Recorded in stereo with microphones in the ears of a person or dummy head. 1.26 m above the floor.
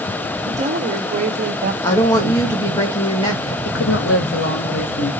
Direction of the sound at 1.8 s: 20° left (ahead or behind).